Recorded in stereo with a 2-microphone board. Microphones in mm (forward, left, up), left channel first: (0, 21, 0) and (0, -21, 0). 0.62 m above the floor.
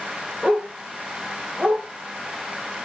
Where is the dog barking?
20° right (ahead or behind), 4 m; by 1.8 s 35° right (ahead or behind), 5 m.